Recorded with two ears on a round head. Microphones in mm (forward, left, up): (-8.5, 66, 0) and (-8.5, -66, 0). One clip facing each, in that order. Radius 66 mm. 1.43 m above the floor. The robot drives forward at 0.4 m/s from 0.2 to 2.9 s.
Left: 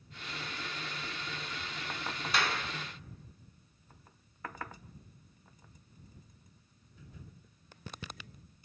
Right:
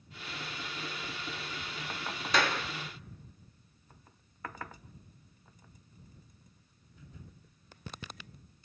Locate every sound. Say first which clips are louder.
2.3 s a clap: right 4 dB; 65° right (ahead or behind), 2.5 m